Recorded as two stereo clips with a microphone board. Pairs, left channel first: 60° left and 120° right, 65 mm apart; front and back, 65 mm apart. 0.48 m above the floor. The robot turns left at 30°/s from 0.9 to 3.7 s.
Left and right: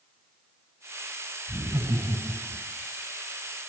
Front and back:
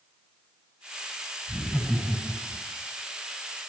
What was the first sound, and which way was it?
Laughter, 75° right.